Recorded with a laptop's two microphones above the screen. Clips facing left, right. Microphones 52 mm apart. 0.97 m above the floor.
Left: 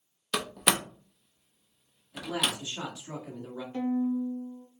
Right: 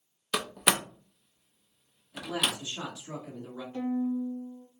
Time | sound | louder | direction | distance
0.3 | a door slam | even | 5° right (ahead or behind) | 0.5 m
2.1 | a man speaking | even | 20° left (ahead or behind) | 1.7 m
3.7 | a violin | left 2 dB | 40° left (ahead or behind) | 1.0 m